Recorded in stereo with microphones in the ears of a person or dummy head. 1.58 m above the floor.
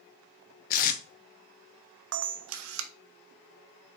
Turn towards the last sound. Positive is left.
turn(degrees=-80)